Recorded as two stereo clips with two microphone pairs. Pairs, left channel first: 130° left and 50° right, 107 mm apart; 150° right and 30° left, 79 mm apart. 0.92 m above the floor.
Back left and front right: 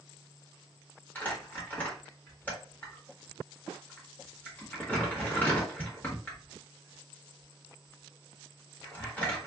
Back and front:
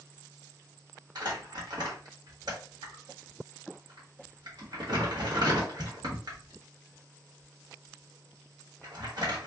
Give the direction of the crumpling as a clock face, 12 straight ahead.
10 o'clock.